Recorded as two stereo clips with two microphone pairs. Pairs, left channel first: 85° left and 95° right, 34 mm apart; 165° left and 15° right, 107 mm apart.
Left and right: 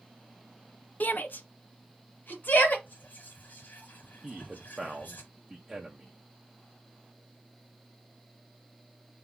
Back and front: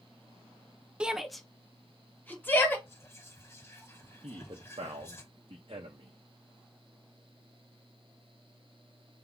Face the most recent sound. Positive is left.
turn(degrees=-20)